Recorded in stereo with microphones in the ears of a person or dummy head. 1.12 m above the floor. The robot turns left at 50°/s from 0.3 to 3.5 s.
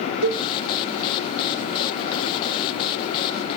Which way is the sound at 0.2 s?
85° right.